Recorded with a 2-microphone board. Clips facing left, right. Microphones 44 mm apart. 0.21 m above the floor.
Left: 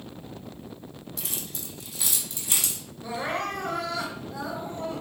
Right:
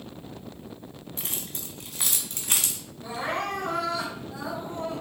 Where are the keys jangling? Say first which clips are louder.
Right 1 dB; 35° right (ahead or behind), 1.0 m; by 2.8 s 55° right (ahead or behind), 1.4 m.